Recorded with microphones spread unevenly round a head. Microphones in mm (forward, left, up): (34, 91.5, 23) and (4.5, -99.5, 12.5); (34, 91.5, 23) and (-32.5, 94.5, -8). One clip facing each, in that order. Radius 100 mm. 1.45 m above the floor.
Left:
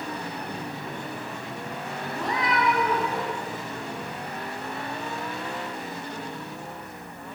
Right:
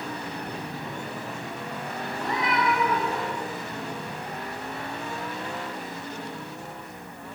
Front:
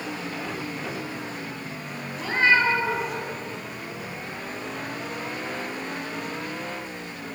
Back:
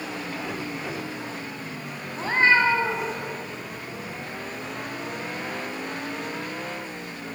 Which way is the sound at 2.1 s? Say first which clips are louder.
Left 1 dB, back 1 dB; 120° left.